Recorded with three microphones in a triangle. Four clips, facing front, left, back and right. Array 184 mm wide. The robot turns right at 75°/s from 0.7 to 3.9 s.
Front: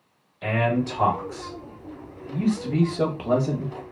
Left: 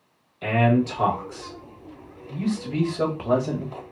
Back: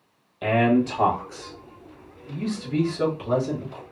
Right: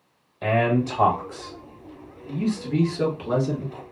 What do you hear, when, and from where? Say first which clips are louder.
0.4 s a man speaking: left 1 dB, back 4 dB; 140° right, 1.4 m; by 3.8 s 95° left, 1.4 m